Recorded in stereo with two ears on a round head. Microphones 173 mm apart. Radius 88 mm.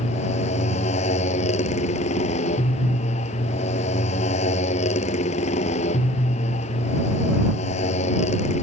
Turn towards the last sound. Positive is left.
turn(degrees=35)  # may be behind; listen again after turning